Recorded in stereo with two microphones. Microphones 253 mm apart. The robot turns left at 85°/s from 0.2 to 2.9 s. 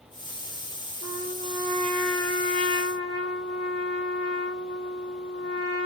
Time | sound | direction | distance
1.0 | a trumpet | 95° right | 2.5 m